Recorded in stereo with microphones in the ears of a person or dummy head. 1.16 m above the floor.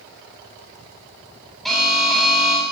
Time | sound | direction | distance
1.6 | an alarm | centre (ahead or behind) | 9 m